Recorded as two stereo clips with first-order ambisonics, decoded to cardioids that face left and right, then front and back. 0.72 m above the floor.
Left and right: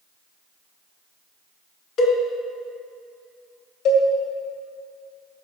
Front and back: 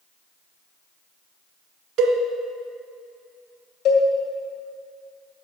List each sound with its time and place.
2.0 s a cowbell: 130° left, 1.6 m
3.9 s a cowbell: 45° left, 2 m